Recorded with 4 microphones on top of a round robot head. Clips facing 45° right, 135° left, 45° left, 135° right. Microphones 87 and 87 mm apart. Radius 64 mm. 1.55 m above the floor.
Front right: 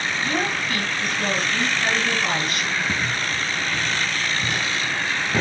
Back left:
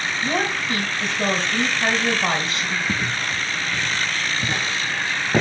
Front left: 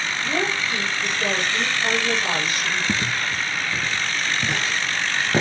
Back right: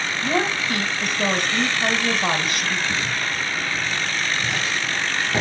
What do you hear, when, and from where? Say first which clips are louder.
0.2 s a woman speaking: back left 2 dB, back right 3 dB; 170° right, 3 m
2.9 s footsteps: even, front left 1 dB; 60° left, 2.5 m; by 5.4 s 105° left, 1.7 m